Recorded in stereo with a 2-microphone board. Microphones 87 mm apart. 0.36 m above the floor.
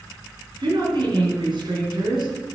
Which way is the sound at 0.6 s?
65° right (ahead or behind).